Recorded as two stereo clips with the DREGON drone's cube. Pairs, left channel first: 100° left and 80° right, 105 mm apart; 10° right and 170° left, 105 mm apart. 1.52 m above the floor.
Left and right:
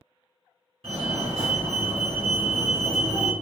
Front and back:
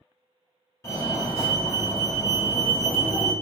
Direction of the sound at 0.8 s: 70° right.